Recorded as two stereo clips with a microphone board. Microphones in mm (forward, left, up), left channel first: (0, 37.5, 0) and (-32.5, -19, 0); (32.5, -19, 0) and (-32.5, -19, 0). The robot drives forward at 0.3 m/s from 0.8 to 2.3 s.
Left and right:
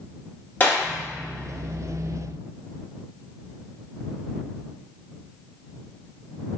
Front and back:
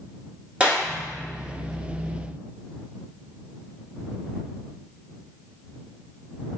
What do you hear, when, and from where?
0.6 s a clap: 110° left, 1.4 m; by 0.8 s 115° left, 1.4 m